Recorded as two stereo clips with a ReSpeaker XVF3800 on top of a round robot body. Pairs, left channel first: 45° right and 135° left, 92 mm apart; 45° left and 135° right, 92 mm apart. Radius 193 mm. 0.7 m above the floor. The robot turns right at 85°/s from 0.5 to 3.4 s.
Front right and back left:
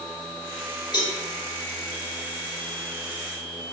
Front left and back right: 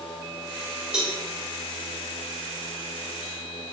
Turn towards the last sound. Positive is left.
turn(degrees=155)